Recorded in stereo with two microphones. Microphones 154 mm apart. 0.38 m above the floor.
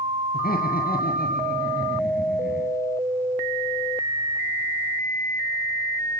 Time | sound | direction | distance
0.3 | laughter | 75° left (ahead or behind) | 9.5 m